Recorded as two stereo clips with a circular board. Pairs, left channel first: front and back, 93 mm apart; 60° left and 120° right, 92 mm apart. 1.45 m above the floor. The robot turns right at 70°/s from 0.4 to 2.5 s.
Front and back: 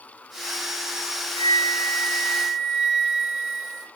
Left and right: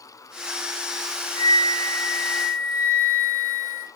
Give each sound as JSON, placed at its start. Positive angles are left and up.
{"t": 1.4, "sound": "a flute", "azimuth_deg": 15, "distance_m": 1.0}